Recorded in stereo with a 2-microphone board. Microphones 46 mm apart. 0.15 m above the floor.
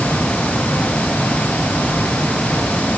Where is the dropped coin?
No dropped coin in this recording.